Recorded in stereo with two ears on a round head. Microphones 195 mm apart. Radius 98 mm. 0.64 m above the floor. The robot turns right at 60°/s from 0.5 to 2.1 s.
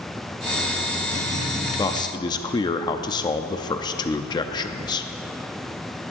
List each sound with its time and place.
1.8 s a man speaking: 20° left (ahead or behind), 0.5 m